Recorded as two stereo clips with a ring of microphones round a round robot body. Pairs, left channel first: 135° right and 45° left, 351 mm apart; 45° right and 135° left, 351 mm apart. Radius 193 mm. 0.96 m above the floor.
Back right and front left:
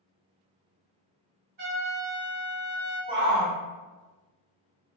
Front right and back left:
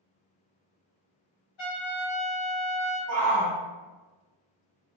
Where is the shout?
115° left, 1.0 m.